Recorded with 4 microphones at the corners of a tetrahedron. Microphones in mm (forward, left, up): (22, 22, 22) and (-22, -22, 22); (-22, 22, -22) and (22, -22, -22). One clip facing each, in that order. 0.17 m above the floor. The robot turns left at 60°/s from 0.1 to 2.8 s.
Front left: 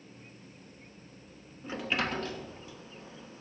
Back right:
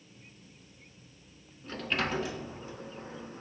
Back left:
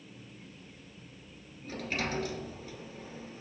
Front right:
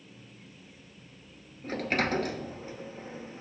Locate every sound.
1.6 s a sliding door: 25° right, 0.5 m; by 3.4 s 95° right, 0.5 m